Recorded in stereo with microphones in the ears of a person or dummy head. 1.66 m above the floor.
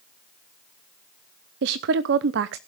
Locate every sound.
1.6 s a woman speaking: 55° right (ahead or behind), 0.8 m